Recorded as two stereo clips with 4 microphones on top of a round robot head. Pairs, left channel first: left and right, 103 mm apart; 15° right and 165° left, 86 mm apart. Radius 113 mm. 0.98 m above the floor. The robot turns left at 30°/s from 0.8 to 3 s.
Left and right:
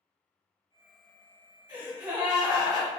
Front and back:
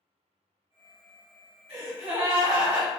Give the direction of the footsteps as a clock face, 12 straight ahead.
No footsteps in this recording.